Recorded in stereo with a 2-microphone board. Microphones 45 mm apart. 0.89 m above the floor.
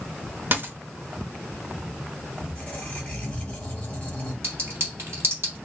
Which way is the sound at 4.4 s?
65° right (ahead or behind).